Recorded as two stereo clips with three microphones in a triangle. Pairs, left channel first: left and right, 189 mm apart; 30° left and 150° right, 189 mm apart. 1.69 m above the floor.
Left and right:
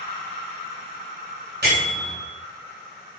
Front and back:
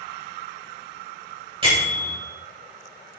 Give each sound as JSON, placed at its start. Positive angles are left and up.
{"t": 1.6, "sound": "a bell", "azimuth_deg": -90, "distance_m": 2.5}